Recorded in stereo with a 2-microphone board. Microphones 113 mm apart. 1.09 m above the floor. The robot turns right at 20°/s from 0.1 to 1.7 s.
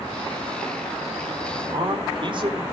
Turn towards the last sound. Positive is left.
turn(degrees=-50)  # may be behind; listen again after turning